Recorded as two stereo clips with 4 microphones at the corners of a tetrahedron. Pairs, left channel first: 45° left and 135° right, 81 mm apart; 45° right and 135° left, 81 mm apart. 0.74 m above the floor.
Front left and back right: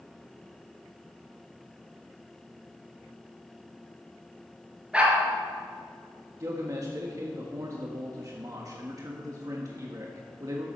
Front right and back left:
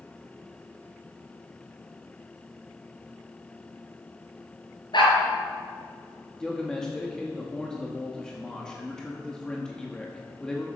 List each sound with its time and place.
4.9 s a dog barking: 60° right, 3.5 m
6.4 s a man speaking: 120° right, 1.2 m